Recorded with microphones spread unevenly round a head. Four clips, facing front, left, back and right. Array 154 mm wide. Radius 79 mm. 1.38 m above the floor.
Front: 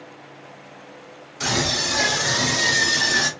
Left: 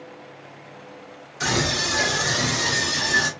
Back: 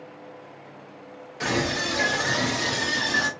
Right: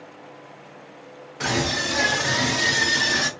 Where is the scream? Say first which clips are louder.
Even, front 1 dB; 115° right, 1.4 m; by 3.3 s 70° right, 1.4 m.